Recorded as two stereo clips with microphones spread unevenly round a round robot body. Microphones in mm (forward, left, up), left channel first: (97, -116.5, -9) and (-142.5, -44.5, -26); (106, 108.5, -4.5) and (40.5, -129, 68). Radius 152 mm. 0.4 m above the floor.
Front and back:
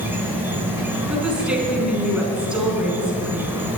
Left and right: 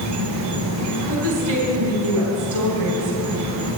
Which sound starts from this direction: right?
A woman speaking, at 1.1 s.